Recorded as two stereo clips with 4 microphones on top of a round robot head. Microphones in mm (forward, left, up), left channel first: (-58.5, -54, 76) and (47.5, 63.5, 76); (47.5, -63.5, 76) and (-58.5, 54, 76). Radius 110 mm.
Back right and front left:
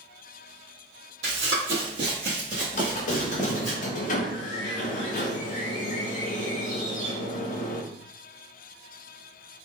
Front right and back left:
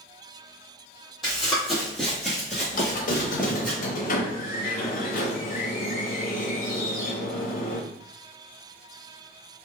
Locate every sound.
1.2 s running footsteps: 45° left, 1.7 m; by 3.7 s 105° right, 0.9 m
2.7 s a squeak: 90° right, 0.7 m